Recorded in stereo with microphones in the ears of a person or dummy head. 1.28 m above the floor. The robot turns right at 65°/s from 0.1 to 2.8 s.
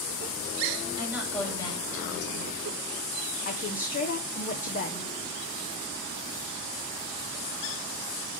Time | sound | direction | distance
1.0 | a woman speaking | 20° right | 4 m
3.5 | a woman speaking | 40° left (ahead or behind) | 0.8 m